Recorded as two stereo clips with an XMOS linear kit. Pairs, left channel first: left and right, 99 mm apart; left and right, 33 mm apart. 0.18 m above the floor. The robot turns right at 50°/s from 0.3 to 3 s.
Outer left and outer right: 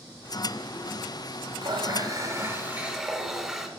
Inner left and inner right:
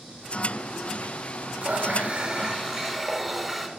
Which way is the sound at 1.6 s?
75° right.